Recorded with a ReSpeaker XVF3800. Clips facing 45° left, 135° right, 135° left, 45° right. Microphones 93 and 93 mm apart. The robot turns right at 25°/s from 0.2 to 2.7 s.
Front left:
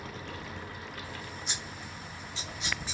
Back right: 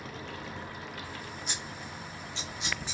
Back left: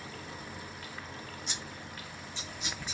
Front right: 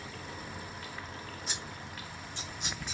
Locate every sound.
1.5 s scissors: 95° right, 3 m; by 3.0 s 65° right, 3 m